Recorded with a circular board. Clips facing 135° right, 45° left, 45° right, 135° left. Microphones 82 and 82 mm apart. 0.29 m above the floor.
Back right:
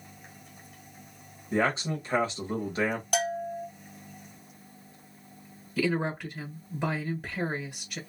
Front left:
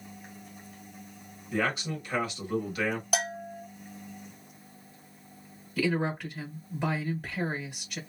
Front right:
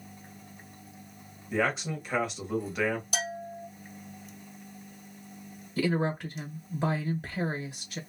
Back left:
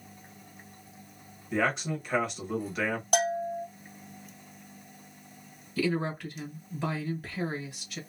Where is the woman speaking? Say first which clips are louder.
Even, front right 1 dB; 60° right, 1.3 m.